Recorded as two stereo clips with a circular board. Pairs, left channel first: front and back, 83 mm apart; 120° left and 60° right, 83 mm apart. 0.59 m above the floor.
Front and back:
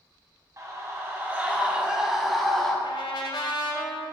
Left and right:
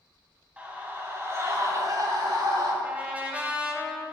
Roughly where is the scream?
Behind right.